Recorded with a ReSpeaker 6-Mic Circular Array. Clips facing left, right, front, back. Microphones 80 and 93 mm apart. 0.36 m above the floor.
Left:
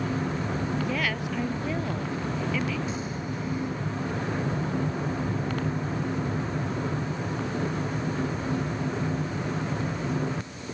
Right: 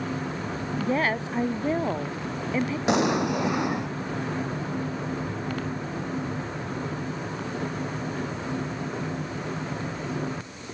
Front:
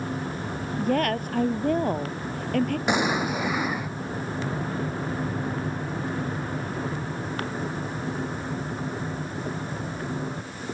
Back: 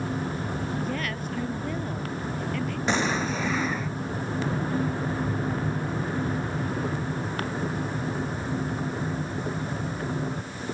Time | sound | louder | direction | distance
0.8 | a woman speaking | right 3 dB, front 6 dB | 35° right | ?
2.9 | an explosion | right 10 dB, back 2 dB | 75° right | ?